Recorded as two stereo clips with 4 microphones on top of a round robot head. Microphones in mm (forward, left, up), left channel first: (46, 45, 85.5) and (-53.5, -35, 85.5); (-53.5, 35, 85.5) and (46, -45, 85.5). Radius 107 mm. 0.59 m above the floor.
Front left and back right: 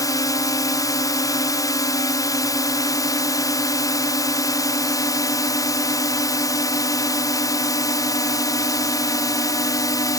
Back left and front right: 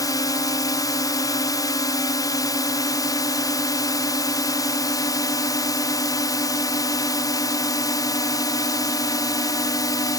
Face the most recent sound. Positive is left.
turn(degrees=90)